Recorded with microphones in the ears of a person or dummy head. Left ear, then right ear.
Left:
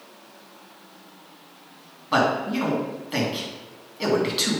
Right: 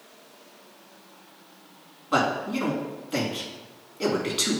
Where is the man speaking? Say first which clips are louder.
Left 3 dB; 10° left (ahead or behind), 2.5 m.